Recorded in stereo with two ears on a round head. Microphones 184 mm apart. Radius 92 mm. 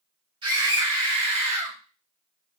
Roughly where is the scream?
Right.